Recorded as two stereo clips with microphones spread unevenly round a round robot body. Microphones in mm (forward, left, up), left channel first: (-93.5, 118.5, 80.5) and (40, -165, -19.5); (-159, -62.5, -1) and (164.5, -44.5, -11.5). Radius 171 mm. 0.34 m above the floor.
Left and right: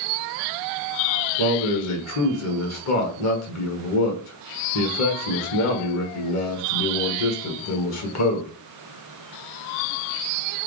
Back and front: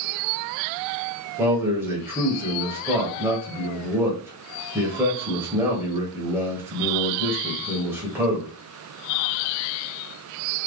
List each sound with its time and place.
1.4 s a man speaking: 80° left, 1.1 m